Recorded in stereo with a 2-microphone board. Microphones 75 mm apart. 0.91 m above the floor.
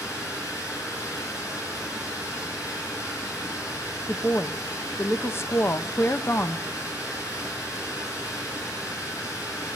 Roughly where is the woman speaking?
Left.